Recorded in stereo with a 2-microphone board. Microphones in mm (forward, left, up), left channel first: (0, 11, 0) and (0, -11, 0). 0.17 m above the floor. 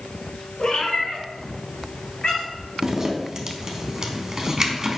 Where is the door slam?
I don't hear a door slam.